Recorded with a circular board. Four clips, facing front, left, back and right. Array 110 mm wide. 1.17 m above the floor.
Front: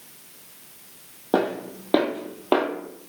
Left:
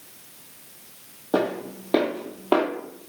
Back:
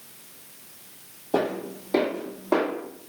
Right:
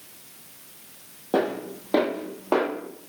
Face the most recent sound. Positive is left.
turn(degrees=30)